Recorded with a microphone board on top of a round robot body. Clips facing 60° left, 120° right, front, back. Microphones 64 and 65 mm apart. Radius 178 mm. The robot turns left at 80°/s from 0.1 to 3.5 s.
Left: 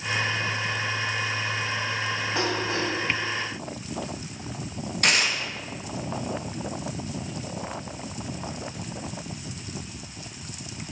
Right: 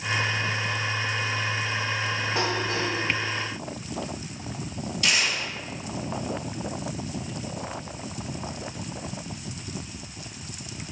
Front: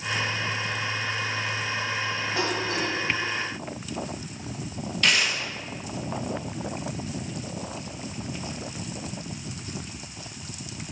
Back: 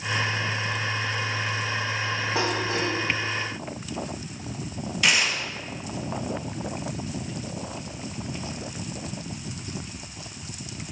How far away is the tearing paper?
About 0.6 m.